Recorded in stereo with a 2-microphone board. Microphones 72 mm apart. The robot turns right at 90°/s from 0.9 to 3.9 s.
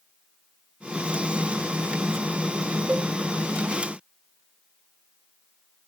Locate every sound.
2.9 s a cowbell: 15° right (ahead or behind), 0.9 m; by 3.0 s 25° right (ahead or behind), 0.9 m